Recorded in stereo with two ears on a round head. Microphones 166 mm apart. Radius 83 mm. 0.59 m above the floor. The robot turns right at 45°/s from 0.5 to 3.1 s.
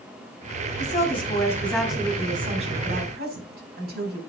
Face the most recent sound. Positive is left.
turn(degrees=-120)